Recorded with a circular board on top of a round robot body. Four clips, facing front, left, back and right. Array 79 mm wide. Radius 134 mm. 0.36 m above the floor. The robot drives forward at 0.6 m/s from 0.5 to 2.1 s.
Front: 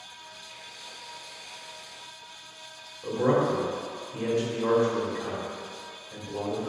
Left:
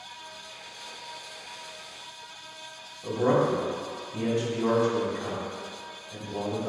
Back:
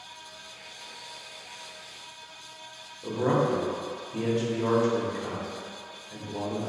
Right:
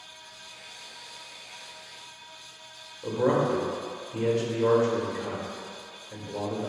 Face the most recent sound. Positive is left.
turn(degrees=-120)